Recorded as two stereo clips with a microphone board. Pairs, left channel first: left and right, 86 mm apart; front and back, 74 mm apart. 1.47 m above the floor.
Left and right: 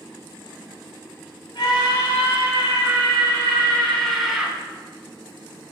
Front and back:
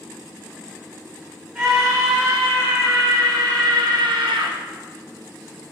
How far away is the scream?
About 2.5 m.